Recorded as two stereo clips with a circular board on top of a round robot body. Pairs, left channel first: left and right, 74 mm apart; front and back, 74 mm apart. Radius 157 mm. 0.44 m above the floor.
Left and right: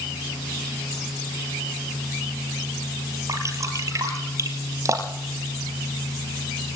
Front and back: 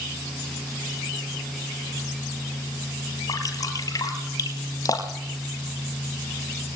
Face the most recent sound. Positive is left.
turn(degrees=-40)